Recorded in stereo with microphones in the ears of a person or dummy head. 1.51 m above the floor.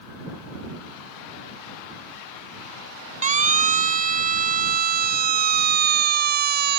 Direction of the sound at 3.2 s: 40° right (ahead or behind).